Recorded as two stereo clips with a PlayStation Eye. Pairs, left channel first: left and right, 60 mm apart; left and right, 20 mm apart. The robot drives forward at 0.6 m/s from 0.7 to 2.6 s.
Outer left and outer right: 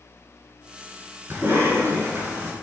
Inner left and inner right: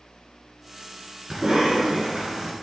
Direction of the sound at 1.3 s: 40° right (ahead or behind).